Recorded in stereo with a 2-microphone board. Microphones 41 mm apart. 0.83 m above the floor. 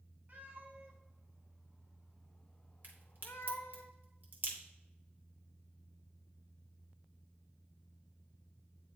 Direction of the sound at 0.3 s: 45° right (ahead or behind).